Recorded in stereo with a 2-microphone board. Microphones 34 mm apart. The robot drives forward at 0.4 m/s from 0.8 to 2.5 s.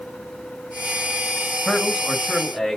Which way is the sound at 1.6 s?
15° left (ahead or behind).